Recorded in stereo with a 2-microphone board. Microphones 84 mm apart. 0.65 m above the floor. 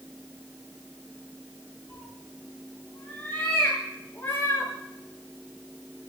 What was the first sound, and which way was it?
A cat meowing, 10° left (ahead or behind).